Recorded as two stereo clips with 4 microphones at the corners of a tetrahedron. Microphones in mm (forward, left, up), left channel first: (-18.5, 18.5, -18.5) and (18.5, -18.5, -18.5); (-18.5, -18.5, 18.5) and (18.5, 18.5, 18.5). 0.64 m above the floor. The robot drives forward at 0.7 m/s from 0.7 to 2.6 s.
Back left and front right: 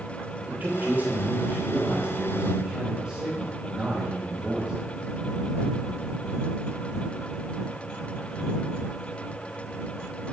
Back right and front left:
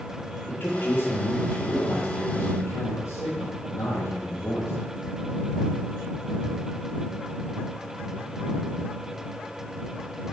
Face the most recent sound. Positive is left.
turn(degrees=-120)